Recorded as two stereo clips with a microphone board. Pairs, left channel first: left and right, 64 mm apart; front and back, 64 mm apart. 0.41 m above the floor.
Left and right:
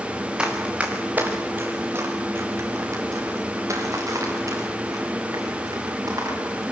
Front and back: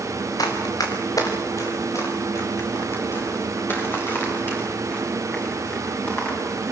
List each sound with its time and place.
0.4 s running footsteps: 15° right, 3.5 m; by 6.7 s 65° right, 9.5 m